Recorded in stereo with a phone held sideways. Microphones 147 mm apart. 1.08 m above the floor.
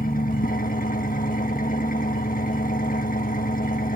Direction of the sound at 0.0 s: 70° left (ahead or behind).